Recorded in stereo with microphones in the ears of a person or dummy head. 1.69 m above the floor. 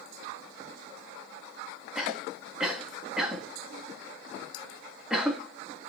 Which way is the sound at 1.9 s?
5° right (ahead or behind).